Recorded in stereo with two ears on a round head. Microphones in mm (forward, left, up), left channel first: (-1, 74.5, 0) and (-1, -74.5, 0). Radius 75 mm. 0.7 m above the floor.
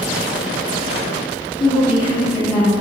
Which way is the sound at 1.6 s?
30° left (ahead or behind).